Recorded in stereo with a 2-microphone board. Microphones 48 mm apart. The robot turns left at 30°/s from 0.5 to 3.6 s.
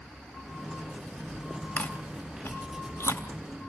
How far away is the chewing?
About 2.5 m.